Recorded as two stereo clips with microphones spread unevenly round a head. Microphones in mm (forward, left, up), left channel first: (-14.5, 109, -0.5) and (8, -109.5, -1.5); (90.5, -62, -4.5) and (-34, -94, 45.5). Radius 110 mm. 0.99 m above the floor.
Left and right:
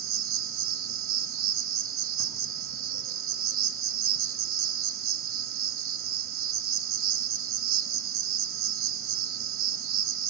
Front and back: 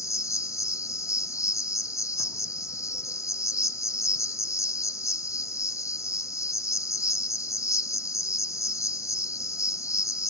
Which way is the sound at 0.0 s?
50° right.